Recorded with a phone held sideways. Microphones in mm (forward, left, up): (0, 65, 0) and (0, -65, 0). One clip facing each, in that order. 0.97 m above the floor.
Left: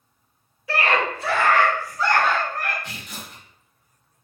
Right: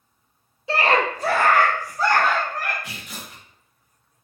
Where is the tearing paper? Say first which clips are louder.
Even; 10° right (ahead or behind), 1.2 m.